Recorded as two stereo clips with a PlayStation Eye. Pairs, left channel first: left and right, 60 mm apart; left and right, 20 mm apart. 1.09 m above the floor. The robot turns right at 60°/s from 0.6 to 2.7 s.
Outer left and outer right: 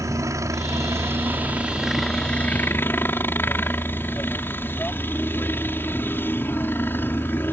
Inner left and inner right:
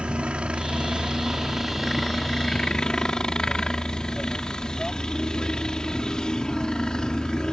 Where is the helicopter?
85° right; by 7.5 s 40° left.